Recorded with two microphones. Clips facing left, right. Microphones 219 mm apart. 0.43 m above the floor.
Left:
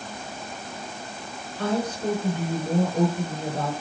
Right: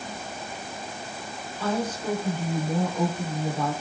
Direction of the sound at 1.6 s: 65° left (ahead or behind).